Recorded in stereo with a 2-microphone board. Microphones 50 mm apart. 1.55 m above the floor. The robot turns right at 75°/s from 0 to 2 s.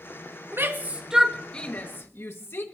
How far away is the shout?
About 1.8 m.